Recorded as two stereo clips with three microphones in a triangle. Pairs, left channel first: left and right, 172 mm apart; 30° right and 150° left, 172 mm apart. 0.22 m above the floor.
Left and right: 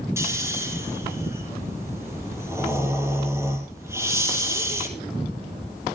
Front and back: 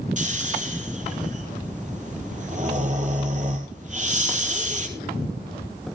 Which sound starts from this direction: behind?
Snoring, at 0.2 s.